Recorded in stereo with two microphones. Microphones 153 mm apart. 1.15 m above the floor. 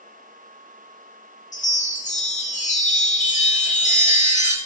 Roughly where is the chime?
Left.